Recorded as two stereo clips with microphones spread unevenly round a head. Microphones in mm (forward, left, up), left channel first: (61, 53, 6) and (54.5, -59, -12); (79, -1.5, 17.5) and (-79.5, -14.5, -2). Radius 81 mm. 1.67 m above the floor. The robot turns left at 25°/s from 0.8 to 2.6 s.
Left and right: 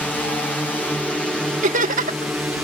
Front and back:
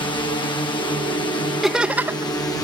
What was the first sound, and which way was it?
A drone, 5° left.